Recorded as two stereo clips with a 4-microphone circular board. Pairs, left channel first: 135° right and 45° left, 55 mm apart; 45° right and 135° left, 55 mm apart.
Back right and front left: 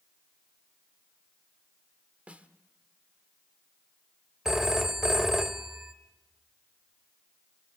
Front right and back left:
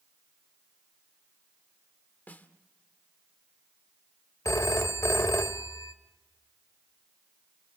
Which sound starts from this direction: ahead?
A snare drum, at 2.3 s.